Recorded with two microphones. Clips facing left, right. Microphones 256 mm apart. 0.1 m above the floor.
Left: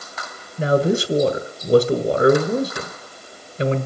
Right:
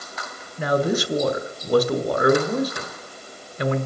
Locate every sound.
0.6 s a man speaking: 30° left (ahead or behind), 1.3 m